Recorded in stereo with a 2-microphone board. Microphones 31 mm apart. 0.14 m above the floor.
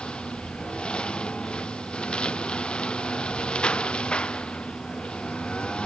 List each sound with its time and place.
0.0 s a lawn mower: 30° left (ahead or behind)